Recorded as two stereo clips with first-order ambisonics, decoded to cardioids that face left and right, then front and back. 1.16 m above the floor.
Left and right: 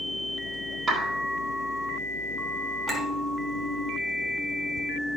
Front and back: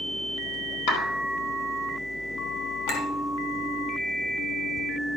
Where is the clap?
15° right, 2.5 m.